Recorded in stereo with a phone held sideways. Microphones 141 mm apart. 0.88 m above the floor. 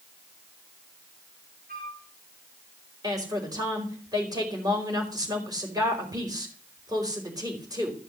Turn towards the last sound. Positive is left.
turn(degrees=-25)  # may be behind; listen again after turning